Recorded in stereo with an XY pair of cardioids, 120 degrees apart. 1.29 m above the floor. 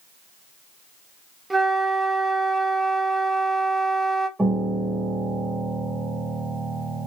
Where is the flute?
20° right, 0.5 m.